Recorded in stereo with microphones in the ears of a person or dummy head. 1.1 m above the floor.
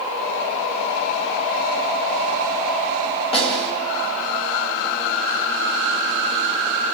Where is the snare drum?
25° left (ahead or behind), 3 m.